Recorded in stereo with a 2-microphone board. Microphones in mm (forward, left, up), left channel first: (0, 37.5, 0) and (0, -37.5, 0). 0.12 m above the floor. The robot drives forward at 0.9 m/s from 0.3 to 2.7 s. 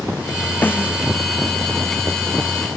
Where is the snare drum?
25° left (ahead or behind); by 1.0 s 30° left (ahead or behind).